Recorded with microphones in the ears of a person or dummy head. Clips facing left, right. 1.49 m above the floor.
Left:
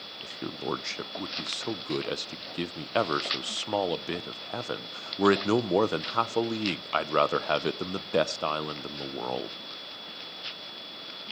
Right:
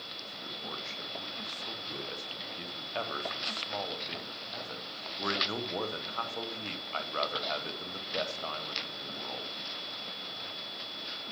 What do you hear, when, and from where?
0.2 s a man speaking: 80° left, 0.9 m